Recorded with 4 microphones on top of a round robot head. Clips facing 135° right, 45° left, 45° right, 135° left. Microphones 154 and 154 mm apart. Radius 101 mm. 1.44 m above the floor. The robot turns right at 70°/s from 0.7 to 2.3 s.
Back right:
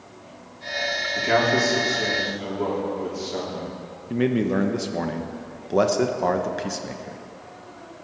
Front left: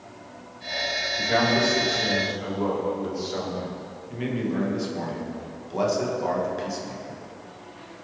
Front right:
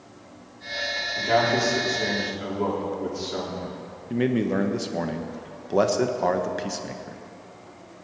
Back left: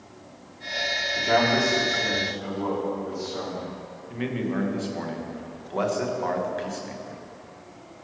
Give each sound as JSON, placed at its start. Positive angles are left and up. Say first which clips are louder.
{"t": 1.1, "sound": "a man speaking", "louder": "back right 2 dB, even", "azimuth_deg": -150, "distance_m": 3.5}
{"t": 4.1, "sound": "a man speaking", "louder": "back right 6 dB, front right 5 dB", "azimuth_deg": -95, "distance_m": 1.2}